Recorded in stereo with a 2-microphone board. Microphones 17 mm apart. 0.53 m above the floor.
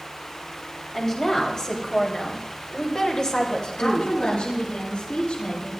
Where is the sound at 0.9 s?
30° left (ahead or behind), 3.5 m; by 4.2 s 55° left (ahead or behind), 2 m.